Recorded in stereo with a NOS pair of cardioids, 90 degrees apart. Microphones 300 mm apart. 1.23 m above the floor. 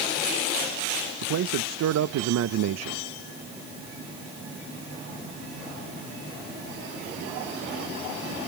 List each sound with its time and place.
1.2 s a man speaking: 65° right, 1.0 m